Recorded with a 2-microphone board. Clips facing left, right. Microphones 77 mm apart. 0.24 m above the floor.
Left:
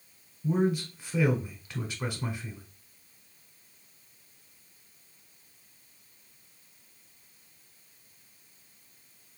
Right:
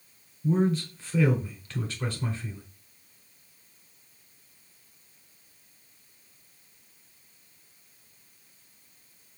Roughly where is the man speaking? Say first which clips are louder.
Right 2 dB; centre.